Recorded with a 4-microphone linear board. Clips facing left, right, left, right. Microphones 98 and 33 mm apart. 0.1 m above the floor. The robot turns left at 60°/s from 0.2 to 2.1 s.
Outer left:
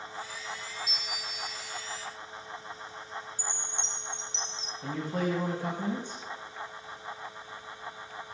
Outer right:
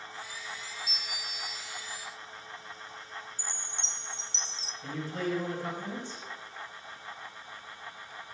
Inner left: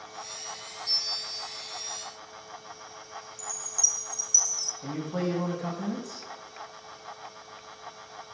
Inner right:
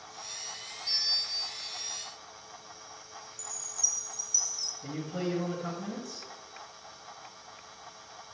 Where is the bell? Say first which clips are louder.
Outer left 2 dB, inner right 2 dB; 80° right, 2 m; by 1.7 s 130° right, 2 m.